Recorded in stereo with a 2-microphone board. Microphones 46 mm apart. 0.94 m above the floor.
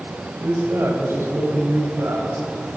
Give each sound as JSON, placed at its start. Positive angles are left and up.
{"t": 0.4, "sound": "a man speaking", "side_deg": -85, "distance_m": 5.0}